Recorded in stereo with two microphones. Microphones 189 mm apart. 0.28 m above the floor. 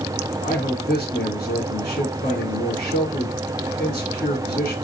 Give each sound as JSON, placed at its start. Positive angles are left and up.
{"t": 0.4, "sound": "a man speaking", "side_deg": 60, "distance_m": 2.5}